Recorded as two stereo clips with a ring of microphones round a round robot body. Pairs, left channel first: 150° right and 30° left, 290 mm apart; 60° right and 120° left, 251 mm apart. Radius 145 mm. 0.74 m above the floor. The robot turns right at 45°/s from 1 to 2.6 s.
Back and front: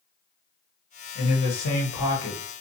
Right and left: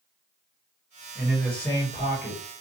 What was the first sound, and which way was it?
A man speaking, 165° right.